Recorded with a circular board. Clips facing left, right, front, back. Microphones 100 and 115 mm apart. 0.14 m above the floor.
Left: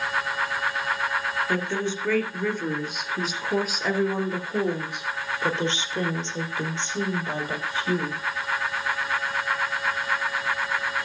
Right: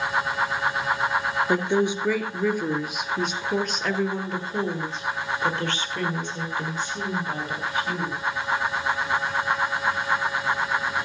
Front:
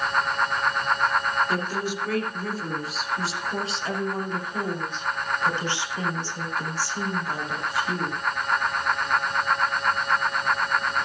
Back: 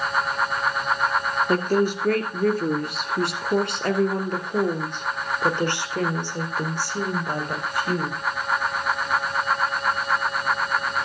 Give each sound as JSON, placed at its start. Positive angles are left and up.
{"t": 1.5, "sound": "a woman speaking", "azimuth_deg": -155, "distance_m": 2.5}